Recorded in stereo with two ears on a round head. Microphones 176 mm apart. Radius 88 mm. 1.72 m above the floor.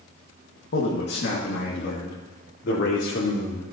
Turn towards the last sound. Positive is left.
turn(degrees=60)  # may be behind; listen again after turning